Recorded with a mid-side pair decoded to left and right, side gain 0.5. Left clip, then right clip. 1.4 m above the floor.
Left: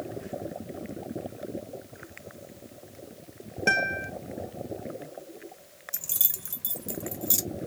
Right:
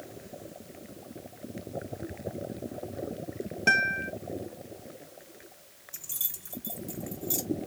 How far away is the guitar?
About 0.7 m.